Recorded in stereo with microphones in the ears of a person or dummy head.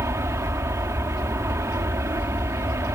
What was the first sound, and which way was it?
An aircraft, 15° right (ahead or behind).